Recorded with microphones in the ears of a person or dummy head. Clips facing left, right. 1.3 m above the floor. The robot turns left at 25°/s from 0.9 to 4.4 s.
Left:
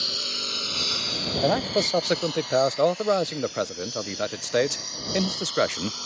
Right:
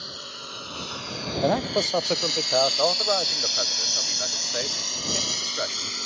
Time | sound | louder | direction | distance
0.0 | a lawn mower | left 4 dB | 35° left (ahead or behind) | ?
1.4 | a man speaking | even | 175° right | ?